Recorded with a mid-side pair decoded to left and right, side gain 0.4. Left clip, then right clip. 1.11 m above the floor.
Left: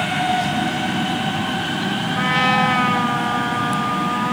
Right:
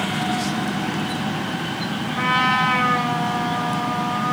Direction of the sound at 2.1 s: 35° left.